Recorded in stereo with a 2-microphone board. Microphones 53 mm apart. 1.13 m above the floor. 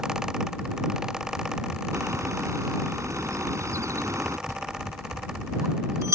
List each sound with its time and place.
1.9 s a bird: 65° right (ahead or behind)
4.5 s a bell: 65° right (ahead or behind)